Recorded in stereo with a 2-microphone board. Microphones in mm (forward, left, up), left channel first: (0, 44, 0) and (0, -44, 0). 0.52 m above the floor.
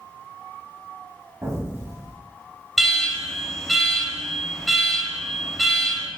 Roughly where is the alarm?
Centre.